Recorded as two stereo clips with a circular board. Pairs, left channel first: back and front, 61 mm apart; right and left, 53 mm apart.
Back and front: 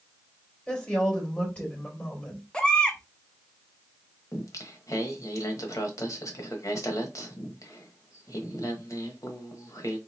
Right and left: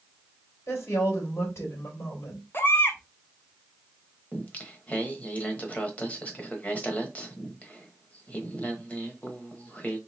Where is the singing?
155° right, 1.0 m.